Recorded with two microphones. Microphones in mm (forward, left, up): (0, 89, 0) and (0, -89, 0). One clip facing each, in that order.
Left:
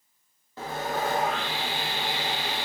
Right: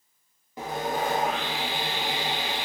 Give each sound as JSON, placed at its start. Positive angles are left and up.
{"t": 0.6, "sound": "sawing", "side_deg": -15, "distance_m": 0.7}